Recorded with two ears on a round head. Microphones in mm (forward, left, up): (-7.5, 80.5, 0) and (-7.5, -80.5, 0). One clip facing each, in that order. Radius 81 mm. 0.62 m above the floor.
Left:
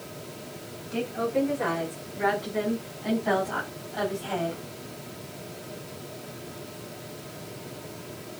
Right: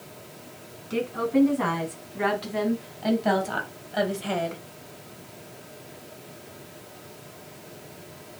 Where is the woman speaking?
85° right, 5.5 m; by 4.6 s 75° right (ahead or behind), 3 m.